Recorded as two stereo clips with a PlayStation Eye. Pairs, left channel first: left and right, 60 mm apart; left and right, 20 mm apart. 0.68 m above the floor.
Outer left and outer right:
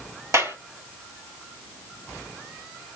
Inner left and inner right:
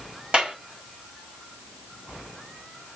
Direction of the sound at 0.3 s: 55° right (ahead or behind).